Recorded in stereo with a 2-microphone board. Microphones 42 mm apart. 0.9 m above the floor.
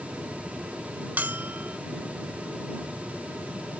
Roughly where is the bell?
Right.